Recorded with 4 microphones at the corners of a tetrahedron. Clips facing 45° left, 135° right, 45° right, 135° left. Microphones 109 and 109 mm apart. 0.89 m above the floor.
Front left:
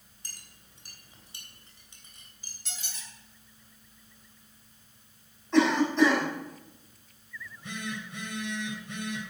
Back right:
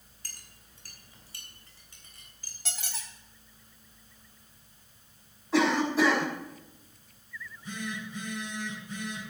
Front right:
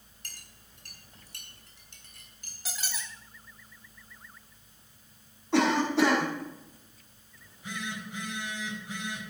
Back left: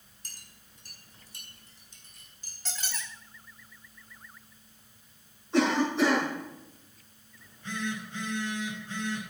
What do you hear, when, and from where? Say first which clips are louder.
0.2 s a clink: even, front right 3 dB; 25° right, 3 m
2.6 s a squeak: back right 5 dB, even; 125° right, 1.6 m
5.5 s a cough: front left 2 dB, front right 1 dB; 50° right, 5.5 m
7.4 s a phone buzzing: back right 1 dB, back left 4 dB; 30° left, 4 m